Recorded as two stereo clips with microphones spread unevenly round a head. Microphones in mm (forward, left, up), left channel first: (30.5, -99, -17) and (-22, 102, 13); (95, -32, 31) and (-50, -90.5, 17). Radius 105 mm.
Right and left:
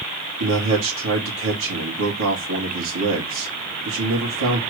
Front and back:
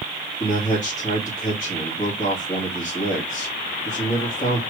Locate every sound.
0.4 s a man speaking: 95° left, 2.5 m